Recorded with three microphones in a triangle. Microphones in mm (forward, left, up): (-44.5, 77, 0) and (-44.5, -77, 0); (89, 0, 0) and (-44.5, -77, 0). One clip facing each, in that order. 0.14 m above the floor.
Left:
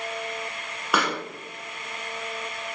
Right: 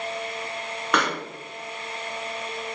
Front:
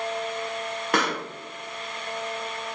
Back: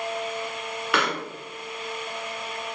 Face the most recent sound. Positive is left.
turn(degrees=10)